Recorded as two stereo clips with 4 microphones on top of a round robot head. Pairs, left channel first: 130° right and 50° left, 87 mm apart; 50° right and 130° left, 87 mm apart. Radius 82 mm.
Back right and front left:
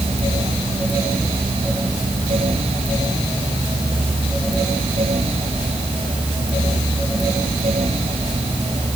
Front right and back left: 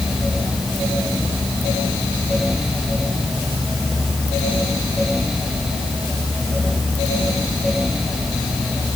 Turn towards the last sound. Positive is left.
No sound to turn to.